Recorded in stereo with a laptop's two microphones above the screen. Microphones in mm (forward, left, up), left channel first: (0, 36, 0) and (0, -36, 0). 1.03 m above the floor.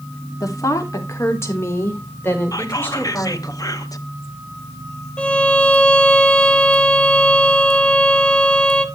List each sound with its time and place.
0.4 s a woman speaking: 50° left (ahead or behind), 3 m; by 3.5 s 20° left (ahead or behind), 6 m
2.5 s whispering: 55° left (ahead or behind), 1.2 m
5.2 s a violin: 15° left (ahead or behind), 1.2 m